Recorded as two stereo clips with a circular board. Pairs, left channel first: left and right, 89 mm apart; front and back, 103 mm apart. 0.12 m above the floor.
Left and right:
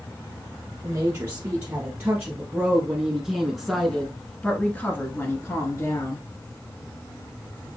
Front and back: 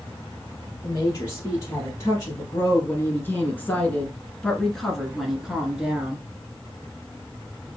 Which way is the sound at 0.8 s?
40° right.